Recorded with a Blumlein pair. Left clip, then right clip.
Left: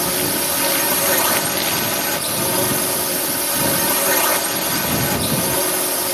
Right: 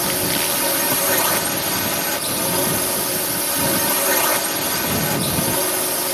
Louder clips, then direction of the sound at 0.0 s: Even; straight ahead.